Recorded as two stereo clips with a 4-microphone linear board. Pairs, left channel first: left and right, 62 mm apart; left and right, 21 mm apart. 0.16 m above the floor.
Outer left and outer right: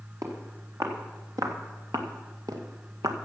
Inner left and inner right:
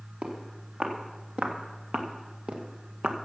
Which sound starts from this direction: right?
Footsteps, at 0.2 s.